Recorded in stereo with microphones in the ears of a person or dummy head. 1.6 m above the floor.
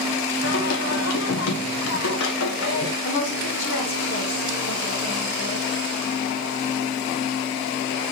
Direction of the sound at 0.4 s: 75° left (ahead or behind).